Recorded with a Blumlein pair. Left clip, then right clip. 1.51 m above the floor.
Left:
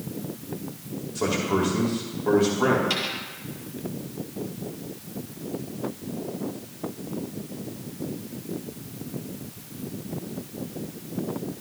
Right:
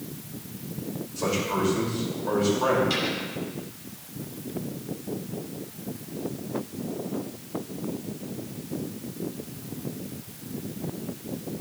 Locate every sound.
1.1 s a man speaking: 30° left, 4.5 m
2.9 s a dropped coin: 65° left, 5.5 m